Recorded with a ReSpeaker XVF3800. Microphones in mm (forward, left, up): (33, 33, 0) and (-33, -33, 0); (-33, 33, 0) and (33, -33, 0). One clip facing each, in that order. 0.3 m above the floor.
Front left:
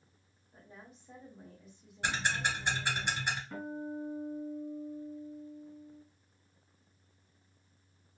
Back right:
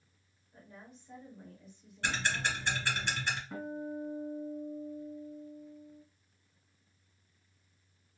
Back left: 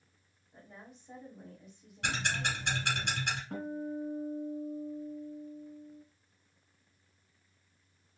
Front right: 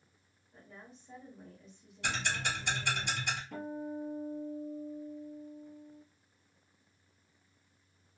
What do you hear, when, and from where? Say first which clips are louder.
0.5 s a woman speaking: back right 1 dB, back left 1 dB; 75° left, 1.4 m
2.0 s ticking: front left 1 dB, back left 1 dB; 120° left, 1.7 m
3.5 s a guitar: even, back left 2 dB; 140° left, 1.6 m